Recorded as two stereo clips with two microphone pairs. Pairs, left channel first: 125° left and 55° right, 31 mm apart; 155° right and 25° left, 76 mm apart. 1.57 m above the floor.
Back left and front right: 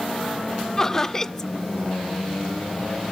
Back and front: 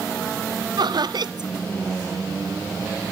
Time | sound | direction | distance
0.8 | laughter | 45° left | 0.5 m